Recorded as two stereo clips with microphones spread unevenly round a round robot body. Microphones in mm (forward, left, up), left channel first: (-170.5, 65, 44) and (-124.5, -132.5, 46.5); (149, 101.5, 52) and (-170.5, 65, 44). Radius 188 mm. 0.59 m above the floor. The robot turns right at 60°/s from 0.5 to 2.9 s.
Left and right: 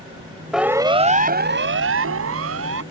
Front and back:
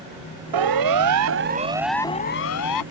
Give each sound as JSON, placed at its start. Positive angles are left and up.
{"t": 0.5, "sound": "a siren", "azimuth_deg": -165}